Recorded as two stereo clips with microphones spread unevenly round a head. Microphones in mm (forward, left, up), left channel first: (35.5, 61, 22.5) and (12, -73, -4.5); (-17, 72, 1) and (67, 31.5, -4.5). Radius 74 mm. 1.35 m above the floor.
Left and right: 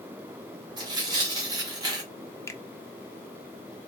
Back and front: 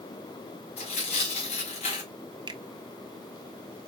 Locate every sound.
0.8 s tearing paper: 165° right, 1.4 m
2.5 s a finger snap: 15° left, 0.6 m